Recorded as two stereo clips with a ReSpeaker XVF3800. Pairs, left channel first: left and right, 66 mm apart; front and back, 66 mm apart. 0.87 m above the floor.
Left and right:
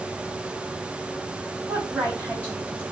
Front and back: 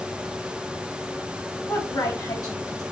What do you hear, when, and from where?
1.7 s a woman speaking: 20° right, 4 m